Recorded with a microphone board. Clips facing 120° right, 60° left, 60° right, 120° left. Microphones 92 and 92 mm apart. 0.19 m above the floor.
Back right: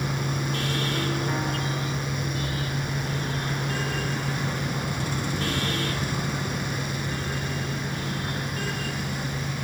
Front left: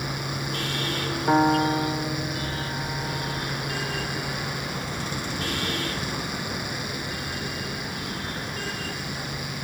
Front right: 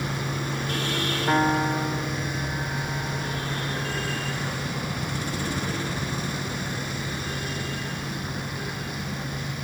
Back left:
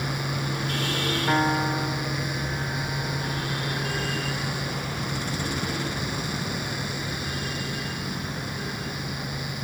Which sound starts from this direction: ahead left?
A piano, at 1.3 s.